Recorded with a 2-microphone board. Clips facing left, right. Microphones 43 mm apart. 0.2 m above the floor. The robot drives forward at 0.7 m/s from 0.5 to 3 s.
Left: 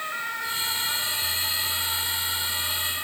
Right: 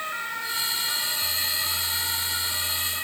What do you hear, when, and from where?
Only background noise.